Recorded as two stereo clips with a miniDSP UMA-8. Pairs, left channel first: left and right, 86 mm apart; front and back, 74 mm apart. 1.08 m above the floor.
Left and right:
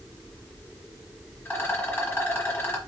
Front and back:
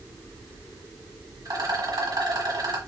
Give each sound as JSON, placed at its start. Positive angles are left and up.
{"t": 1.4, "sound": "a rattle", "azimuth_deg": 155, "distance_m": 1.6}